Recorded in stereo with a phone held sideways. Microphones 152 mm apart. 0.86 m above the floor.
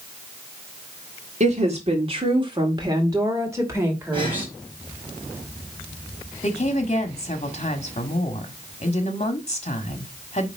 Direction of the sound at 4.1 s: 35° right (ahead or behind).